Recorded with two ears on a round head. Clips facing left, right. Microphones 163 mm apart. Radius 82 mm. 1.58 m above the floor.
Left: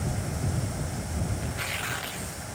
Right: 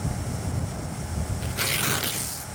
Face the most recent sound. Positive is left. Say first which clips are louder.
# right 4 dB
turn(degrees=-50)  # may be behind; listen again after turning